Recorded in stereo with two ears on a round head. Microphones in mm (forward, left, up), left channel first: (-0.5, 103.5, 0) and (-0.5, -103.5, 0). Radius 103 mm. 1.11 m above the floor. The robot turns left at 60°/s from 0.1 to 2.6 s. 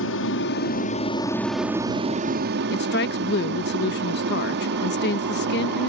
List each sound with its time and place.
0.0 s an aircraft: 85° left; by 5.9 s 65° right
2.7 s a woman speaking: 50° left (ahead or behind)